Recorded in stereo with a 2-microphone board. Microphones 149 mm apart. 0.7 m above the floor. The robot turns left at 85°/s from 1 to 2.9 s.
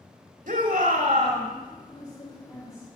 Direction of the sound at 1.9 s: 40° left.